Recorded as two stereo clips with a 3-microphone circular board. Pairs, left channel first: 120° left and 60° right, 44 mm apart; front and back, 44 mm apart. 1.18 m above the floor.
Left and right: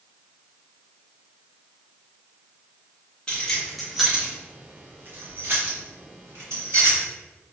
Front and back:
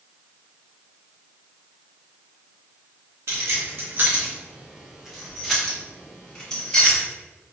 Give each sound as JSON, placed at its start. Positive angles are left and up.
{"t": 3.3, "sound": "keys jangling", "azimuth_deg": -175, "distance_m": 0.9}